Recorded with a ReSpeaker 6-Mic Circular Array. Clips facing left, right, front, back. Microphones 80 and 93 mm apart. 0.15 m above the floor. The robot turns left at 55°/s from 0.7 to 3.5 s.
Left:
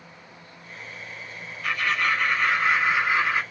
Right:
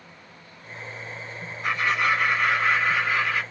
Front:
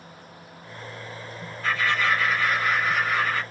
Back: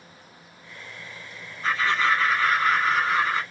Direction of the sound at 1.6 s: 125° right.